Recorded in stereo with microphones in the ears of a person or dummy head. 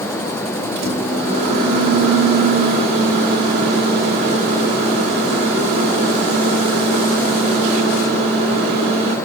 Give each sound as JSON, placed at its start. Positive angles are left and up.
{"t": 0.8, "sound": "a microwave", "side_deg": -40, "distance_m": 3.0}